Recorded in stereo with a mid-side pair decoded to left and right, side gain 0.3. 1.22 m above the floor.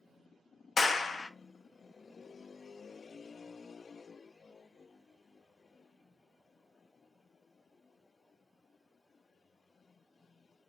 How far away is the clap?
About 0.6 m.